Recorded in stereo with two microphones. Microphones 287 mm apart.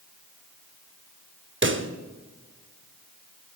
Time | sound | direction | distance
1.6 | a pop | 45° right (ahead or behind) | 0.7 m